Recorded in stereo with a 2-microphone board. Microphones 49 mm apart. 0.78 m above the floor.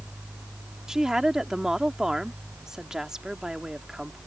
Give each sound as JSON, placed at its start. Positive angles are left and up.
{"t": 0.9, "sound": "a woman speaking", "side_deg": -10}